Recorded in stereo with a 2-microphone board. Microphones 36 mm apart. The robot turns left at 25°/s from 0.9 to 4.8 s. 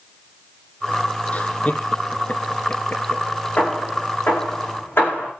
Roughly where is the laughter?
Left.